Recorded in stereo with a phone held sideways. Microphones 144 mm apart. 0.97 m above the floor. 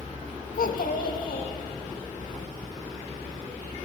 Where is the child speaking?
85° left, 0.5 m.